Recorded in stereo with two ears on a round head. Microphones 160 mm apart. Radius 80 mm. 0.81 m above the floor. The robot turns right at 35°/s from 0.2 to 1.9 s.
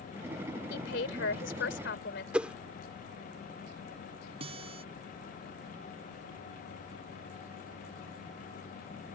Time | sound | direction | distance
0.7 | a woman speaking | 65° left | ?
2.3 | a whoosh | 5° right (ahead or behind) | ?
4.4 | a guitar | 35° right (ahead or behind) | ?